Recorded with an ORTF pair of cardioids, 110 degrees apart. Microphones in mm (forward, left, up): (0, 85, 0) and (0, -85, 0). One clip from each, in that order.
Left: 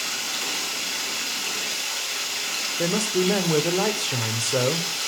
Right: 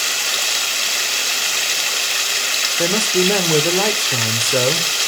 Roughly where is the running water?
Ahead right.